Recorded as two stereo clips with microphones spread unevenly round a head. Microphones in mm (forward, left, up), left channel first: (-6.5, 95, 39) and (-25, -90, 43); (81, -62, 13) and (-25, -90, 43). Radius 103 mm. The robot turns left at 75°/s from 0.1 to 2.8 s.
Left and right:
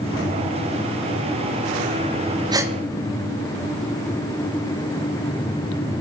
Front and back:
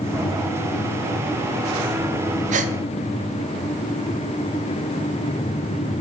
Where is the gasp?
165° right, 0.7 m; by 2.7 s straight behind, 0.7 m.